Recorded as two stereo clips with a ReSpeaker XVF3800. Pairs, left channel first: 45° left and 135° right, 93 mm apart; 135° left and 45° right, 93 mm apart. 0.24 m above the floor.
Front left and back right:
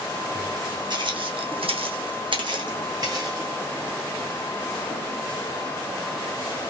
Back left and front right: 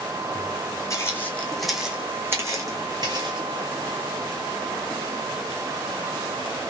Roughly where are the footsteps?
Behind.